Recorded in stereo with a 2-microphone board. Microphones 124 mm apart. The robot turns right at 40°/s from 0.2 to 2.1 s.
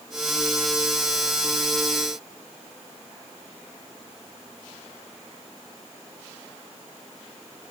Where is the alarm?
No alarm in this recording.